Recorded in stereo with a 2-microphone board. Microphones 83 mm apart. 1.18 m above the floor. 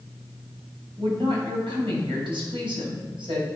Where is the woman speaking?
85° right, 6.5 m.